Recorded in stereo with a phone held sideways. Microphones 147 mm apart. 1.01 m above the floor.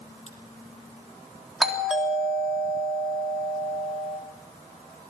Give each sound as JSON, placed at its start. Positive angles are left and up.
{"t": 0.3, "sound": "a crack", "side_deg": 50, "distance_m": 6.0}
{"t": 1.6, "sound": "a doorbell", "side_deg": -5, "distance_m": 3.5}